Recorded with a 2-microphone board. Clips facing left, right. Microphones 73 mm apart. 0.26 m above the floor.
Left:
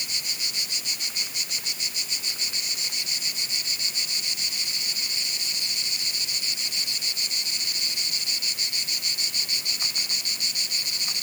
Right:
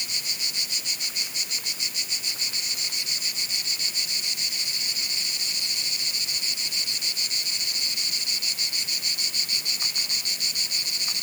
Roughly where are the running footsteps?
I don't hear running footsteps.